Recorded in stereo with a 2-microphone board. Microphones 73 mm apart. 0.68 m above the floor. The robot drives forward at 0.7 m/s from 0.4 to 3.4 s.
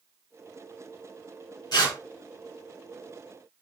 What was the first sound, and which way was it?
Tearing paper, 80° left.